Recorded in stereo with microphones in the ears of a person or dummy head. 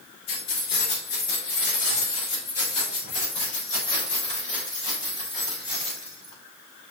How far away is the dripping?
No dripping in this recording.